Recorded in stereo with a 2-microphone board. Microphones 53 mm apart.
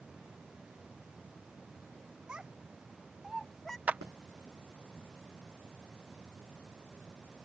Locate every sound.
2.3 s a child speaking: 20° right (ahead or behind); by 3.8 s 10° left (ahead or behind)
3.9 s a clap: 30° right (ahead or behind)